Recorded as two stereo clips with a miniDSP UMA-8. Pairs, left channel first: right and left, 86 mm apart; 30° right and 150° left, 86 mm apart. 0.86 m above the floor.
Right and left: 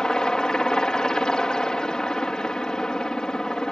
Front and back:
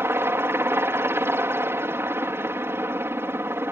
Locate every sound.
0.0 s a helicopter: 165° right